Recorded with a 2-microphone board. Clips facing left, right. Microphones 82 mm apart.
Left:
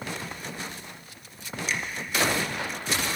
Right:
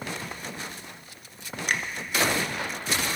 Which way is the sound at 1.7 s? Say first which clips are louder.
Right 3 dB; 55° right (ahead or behind).